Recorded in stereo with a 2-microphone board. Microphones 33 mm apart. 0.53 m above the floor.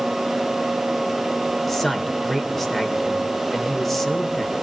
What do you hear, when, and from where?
1.7 s a man speaking: 10° left (ahead or behind), 2 m